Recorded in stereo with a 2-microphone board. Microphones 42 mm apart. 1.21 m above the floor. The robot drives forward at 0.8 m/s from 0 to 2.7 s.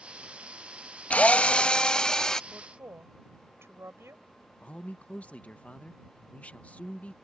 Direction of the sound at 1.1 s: 30° left (ahead or behind).